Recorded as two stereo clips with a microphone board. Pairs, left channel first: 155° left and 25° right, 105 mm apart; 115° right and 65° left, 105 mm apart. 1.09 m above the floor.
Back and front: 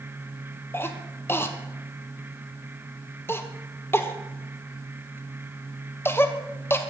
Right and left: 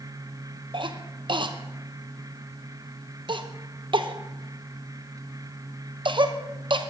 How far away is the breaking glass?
No breaking glass in this recording.